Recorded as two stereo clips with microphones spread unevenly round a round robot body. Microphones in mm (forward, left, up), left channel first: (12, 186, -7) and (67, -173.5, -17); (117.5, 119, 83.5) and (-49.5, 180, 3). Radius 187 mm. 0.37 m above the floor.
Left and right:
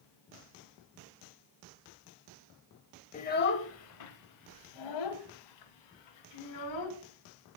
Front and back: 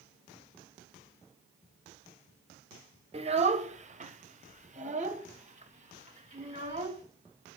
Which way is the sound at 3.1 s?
170° left.